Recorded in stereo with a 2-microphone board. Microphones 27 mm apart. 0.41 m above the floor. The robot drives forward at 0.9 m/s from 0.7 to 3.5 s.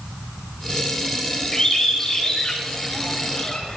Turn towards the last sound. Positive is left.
turn(degrees=20)  # may be behind; listen again after turning